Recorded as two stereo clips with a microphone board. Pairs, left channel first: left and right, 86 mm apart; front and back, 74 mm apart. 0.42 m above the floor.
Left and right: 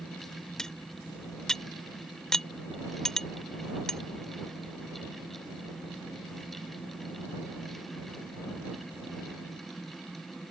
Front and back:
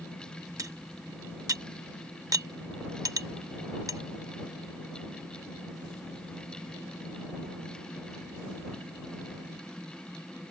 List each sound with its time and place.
0.6 s cutlery clinking: 170° left